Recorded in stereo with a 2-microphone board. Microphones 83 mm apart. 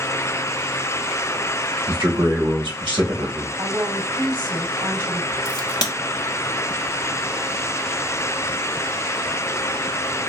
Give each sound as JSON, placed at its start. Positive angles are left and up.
{"t": 1.9, "sound": "a man speaking", "side_deg": -75, "distance_m": 1.9}
{"t": 3.6, "sound": "a woman speaking", "side_deg": -70, "distance_m": 3.0}
{"t": 5.5, "sound": "a crack", "side_deg": 50, "distance_m": 0.9}